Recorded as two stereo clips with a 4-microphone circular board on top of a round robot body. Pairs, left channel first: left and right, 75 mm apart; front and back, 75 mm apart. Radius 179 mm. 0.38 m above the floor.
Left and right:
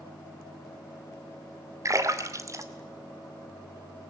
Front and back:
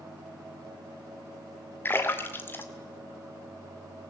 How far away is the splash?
About 2.5 m.